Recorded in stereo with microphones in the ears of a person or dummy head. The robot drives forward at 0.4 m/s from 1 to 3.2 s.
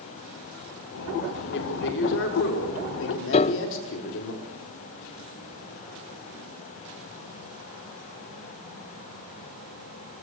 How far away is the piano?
About 0.6 m.